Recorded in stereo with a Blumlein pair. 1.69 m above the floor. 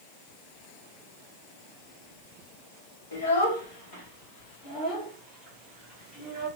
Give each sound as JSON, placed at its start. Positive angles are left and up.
{"t": 3.1, "sound": "a child speaking", "azimuth_deg": 65, "distance_m": 1.6}